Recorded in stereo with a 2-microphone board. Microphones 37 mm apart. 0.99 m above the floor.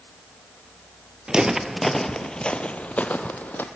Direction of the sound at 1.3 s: 20° right (ahead or behind).